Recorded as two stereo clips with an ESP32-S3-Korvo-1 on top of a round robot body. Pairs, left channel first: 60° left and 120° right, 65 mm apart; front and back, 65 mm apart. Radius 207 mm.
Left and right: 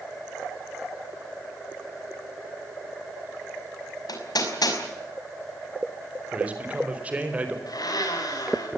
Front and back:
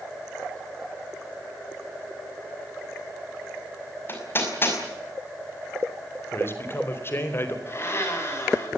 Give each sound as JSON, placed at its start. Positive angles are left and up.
{"t": 4.1, "sound": "hammering", "azimuth_deg": 55, "distance_m": 5.5}
{"t": 6.3, "sound": "a man speaking", "azimuth_deg": -50, "distance_m": 4.5}
{"t": 7.7, "sound": "a blender", "azimuth_deg": 50, "distance_m": 7.0}